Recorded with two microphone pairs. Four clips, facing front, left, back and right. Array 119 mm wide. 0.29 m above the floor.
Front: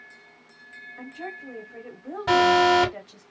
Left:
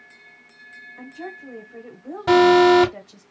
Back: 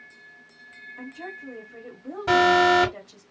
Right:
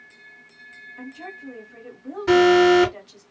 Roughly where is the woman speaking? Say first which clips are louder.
Left 2 dB, front 1 dB; ahead left.